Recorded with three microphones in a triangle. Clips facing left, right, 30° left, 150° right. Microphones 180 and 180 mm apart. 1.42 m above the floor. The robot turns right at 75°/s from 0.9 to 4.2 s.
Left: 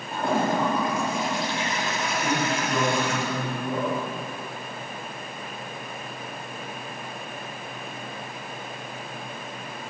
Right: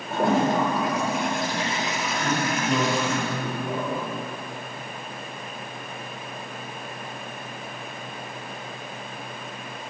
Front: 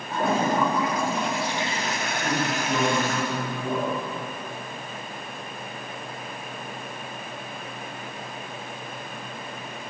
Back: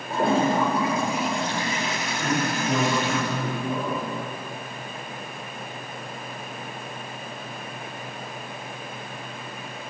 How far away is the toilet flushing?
About 5 m.